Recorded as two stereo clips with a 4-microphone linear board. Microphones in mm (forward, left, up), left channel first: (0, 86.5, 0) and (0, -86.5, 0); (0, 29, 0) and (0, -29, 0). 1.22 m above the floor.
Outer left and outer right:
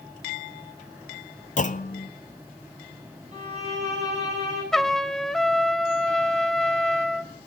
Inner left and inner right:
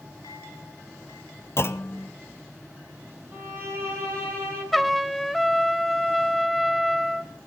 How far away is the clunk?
About 0.8 m.